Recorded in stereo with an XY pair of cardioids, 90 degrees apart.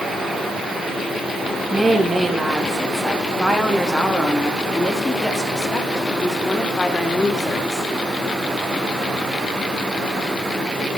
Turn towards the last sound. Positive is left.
turn(degrees=30)